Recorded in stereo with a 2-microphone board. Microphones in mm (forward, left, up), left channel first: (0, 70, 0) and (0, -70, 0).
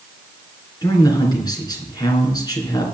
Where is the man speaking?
30° left (ahead or behind), 3.5 m.